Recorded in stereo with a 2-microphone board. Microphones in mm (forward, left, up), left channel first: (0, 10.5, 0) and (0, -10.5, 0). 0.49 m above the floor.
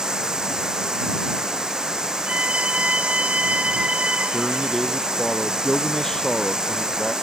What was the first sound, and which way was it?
Running water, 30° right (ahead or behind).